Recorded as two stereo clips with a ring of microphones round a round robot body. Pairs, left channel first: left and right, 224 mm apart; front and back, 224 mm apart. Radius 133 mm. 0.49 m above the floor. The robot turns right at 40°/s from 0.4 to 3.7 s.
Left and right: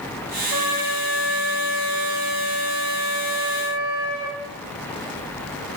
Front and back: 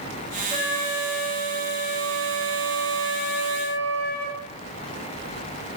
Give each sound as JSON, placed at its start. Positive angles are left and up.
{"t": 0.5, "sound": "a flute", "azimuth_deg": -120, "distance_m": 1.6}